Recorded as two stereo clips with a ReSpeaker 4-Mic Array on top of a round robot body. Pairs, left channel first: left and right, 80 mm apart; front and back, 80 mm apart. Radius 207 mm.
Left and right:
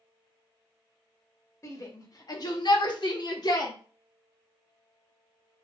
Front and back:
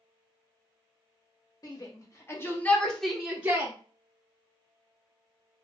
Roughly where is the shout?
Ahead left.